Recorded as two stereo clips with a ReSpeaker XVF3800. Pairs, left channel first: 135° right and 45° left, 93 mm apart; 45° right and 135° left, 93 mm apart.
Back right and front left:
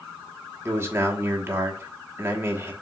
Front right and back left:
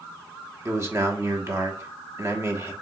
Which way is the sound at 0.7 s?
90° left.